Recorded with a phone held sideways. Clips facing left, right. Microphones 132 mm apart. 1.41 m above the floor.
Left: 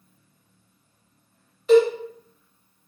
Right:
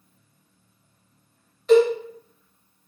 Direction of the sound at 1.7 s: 5° left (ahead or behind).